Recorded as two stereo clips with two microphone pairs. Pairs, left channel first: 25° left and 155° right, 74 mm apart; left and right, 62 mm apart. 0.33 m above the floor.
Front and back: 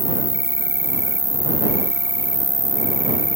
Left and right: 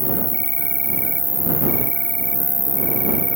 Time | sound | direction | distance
0.0 | an insect | 160° left | ?